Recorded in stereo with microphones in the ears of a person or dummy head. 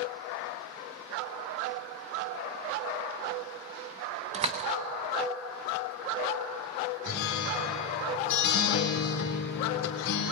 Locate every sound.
4.3 s a door slam: 35° right (ahead or behind), 0.7 m
7.0 s a guitar: 70° left (ahead or behind), 2 m